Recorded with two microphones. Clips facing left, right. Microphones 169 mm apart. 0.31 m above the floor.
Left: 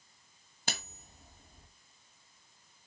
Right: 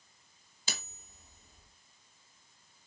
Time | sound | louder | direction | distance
0.7 | cutlery clinking | left 4 dB | 60° left (ahead or behind) | 1.5 m